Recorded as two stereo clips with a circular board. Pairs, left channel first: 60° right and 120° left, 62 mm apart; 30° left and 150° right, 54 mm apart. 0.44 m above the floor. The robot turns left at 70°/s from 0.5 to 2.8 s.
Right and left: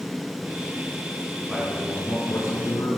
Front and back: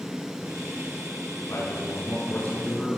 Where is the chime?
I don't hear a chime.